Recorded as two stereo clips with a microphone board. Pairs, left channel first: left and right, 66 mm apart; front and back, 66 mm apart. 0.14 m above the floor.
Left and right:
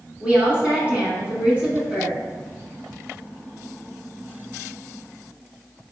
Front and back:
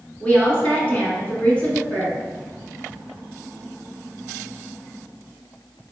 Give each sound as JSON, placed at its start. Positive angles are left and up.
{"t": 0.2, "sound": "a woman speaking", "azimuth_deg": -50, "distance_m": 1.6}